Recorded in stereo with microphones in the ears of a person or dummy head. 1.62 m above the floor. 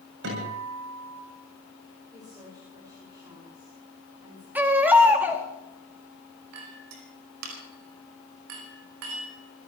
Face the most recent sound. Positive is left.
turn(degrees=-80)